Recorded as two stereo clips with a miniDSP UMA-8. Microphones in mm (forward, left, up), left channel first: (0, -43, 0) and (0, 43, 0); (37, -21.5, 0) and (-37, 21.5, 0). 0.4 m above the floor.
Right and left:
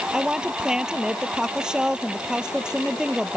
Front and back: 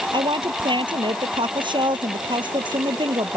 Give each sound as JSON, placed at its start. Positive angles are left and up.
{"t": 0.1, "sound": "a woman speaking", "azimuth_deg": 170}